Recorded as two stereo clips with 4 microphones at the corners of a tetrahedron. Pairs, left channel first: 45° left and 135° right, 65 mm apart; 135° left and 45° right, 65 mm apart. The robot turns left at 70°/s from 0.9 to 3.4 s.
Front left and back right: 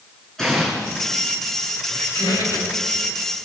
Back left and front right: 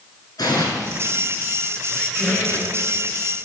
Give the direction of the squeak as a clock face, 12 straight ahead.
10 o'clock.